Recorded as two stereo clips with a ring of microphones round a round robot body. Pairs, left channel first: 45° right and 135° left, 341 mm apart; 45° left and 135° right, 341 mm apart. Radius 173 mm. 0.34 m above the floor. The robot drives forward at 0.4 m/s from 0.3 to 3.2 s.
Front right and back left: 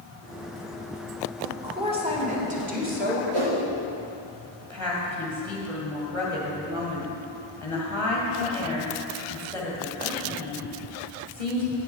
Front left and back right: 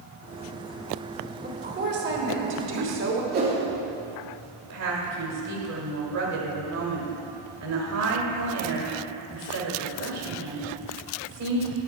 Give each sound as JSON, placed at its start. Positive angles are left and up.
{"t": 1.4, "sound": "a woman speaking", "azimuth_deg": -160, "distance_m": 1.4}
{"t": 3.3, "sound": "a whoosh", "azimuth_deg": 160, "distance_m": 3.0}
{"t": 4.6, "sound": "a woman speaking", "azimuth_deg": -155, "distance_m": 1.6}